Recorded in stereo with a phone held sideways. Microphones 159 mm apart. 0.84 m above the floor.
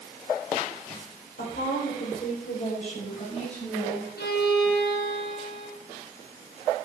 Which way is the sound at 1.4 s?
80° left.